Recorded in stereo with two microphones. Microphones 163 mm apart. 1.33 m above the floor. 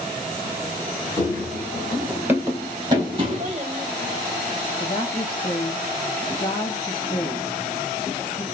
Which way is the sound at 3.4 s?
40° right (ahead or behind).